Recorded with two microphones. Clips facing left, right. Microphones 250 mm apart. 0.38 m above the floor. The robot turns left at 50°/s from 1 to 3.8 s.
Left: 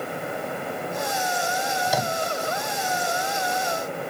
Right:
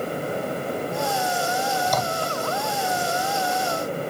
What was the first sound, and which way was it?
A microwave, 5° left (ahead or behind).